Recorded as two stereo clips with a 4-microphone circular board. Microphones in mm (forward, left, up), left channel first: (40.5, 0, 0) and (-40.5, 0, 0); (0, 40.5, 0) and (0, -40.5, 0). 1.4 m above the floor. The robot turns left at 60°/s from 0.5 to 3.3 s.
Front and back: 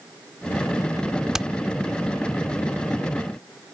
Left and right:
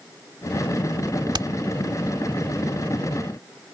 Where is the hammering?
95° right; by 1.5 s 105° right.